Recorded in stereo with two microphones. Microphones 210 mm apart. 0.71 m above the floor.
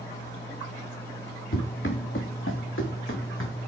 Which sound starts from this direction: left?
Running footsteps, at 1.5 s.